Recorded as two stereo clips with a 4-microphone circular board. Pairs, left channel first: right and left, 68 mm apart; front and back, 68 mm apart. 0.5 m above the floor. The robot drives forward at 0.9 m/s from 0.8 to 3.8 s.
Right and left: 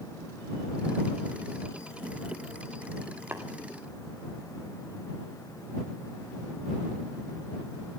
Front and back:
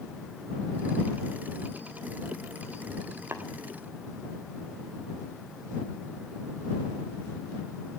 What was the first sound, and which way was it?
Tapping, 140° left.